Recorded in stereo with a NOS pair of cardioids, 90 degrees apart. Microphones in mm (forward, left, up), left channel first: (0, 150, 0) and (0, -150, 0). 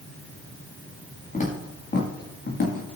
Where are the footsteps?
25° left, 6.5 m; by 2.9 s 40° left, 6 m.